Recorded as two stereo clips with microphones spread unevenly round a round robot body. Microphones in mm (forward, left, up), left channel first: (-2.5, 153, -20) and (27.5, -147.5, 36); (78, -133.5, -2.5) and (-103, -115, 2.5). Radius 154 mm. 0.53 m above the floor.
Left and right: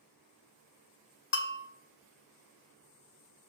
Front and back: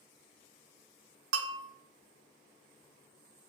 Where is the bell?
155° left, 0.7 m.